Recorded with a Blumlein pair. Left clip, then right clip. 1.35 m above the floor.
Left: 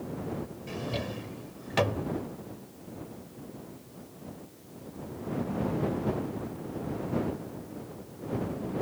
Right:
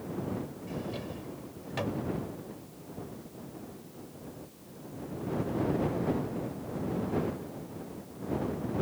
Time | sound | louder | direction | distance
0.7 | a drawer | left 6 dB | 65° left | ?